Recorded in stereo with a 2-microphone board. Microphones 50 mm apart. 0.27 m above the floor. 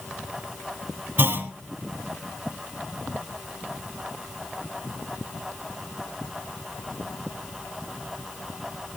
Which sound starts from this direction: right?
A clunk, at 1.2 s.